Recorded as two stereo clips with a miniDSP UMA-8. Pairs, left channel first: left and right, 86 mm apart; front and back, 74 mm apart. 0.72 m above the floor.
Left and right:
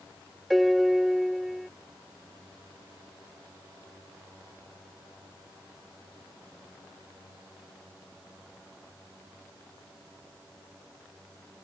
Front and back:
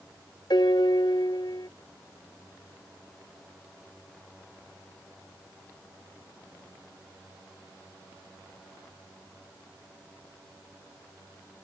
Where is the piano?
Straight ahead.